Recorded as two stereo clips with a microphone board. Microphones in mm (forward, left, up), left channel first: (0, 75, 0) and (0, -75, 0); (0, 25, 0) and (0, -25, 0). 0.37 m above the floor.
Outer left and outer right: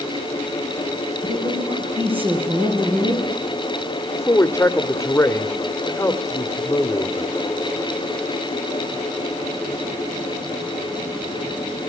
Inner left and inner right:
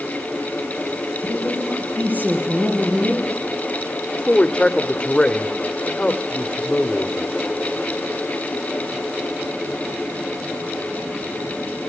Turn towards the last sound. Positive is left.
turn(degrees=20)  # may be behind; listen again after turning